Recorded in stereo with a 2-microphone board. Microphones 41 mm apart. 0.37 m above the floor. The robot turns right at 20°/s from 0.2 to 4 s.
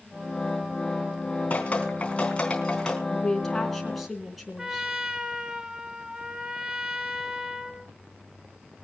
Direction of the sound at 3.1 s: 15° left (ahead or behind).